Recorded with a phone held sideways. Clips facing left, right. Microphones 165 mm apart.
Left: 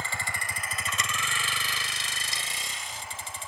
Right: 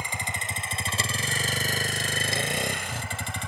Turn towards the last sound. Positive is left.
turn(degrees=-80)